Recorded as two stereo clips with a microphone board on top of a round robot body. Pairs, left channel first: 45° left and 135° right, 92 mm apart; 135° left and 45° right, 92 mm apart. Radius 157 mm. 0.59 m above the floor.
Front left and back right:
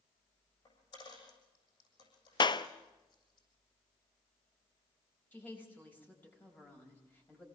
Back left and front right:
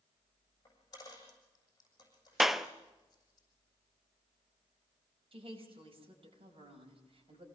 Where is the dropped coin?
80° left, 7 m.